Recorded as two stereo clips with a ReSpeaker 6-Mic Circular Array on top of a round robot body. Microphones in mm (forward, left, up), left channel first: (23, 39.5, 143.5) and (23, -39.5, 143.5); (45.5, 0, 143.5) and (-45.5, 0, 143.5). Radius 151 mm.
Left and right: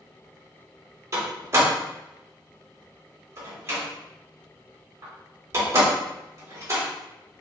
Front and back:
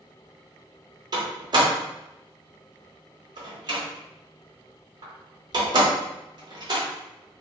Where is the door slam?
140° right, 1.3 m.